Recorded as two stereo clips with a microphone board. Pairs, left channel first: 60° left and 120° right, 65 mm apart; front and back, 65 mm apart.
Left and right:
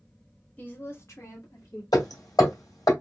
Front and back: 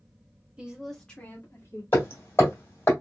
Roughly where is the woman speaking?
Behind left.